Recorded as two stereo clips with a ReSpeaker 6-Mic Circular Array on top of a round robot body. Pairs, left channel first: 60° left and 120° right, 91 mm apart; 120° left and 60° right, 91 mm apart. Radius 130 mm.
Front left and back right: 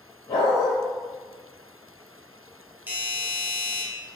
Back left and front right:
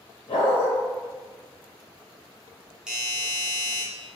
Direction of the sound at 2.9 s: 130° right.